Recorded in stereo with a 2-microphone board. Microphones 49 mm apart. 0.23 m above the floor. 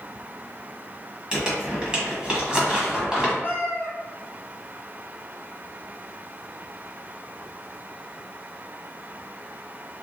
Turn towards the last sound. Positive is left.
turn(degrees=40)  # may be behind; listen again after turning